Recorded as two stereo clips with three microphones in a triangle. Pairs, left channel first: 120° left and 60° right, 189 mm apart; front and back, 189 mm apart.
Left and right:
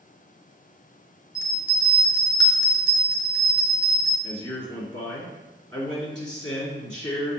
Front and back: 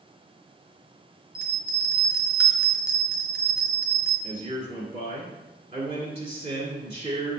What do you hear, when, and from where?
1.4 s a bell: 110° left, 1.2 m
4.2 s a man speaking: 160° right, 1.9 m